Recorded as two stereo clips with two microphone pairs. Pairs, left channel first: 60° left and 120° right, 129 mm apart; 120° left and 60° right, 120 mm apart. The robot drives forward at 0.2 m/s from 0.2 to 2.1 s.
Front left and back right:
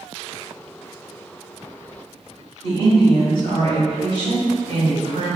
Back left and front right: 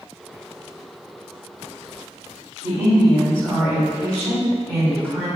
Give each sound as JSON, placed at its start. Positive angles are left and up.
{"t": 2.6, "sound": "a woman speaking", "azimuth_deg": -155, "distance_m": 1.7}